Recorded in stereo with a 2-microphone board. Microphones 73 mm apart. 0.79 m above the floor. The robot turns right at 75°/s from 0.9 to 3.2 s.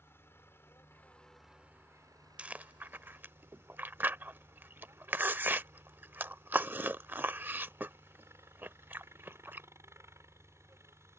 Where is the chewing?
15° right (ahead or behind); by 9.7 s 25° right (ahead or behind).